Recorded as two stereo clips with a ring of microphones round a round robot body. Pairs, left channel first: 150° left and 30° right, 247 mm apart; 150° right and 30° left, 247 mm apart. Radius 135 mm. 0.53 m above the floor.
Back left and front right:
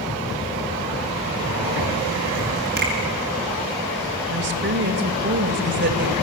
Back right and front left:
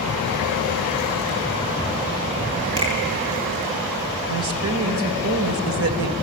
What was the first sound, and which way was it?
A finger snap, 20° left.